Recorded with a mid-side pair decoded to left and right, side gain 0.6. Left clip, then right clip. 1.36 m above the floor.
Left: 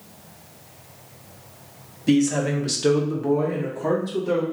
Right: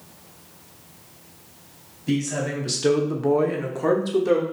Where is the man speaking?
35° left, 0.9 m; by 4.4 s 70° right, 1.2 m.